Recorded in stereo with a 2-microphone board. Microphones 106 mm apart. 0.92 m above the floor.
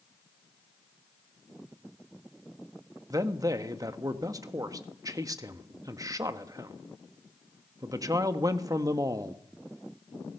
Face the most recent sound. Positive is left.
turn(degrees=-35)  # may be behind; listen again after turning